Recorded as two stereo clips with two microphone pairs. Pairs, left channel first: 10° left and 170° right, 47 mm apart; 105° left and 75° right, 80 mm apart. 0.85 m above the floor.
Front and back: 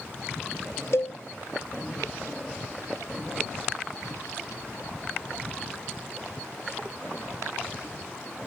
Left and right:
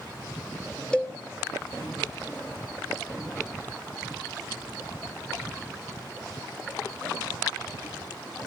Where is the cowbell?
25° left, 1.3 m.